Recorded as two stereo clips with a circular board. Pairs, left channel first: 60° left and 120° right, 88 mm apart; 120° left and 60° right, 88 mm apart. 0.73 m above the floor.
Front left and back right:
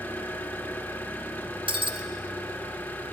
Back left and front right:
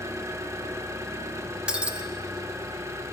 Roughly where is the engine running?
Ahead.